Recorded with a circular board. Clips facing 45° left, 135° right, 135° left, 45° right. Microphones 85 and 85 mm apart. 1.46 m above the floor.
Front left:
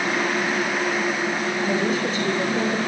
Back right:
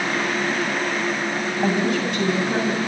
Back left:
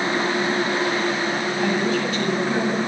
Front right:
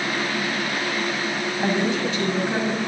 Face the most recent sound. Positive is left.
turn(degrees=-115)